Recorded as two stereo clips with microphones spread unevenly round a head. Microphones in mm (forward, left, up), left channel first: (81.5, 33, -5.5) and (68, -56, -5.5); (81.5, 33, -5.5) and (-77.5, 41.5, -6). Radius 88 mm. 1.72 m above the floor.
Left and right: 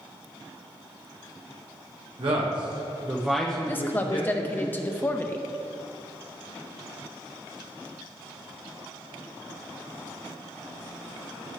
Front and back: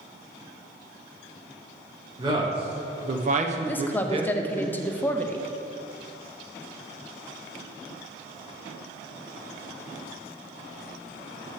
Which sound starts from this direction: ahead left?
A woman speaking, at 3.7 s.